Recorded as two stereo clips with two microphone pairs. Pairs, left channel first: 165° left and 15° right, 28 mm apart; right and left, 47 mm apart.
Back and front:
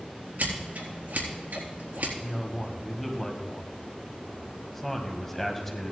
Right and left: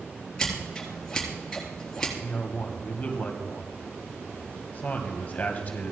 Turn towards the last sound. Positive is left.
turn(degrees=-120)